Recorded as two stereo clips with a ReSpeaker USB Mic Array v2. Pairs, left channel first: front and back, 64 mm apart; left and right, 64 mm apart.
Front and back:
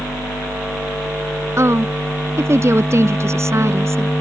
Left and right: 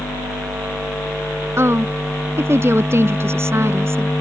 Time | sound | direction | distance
1.6 | a woman speaking | 135° right | ?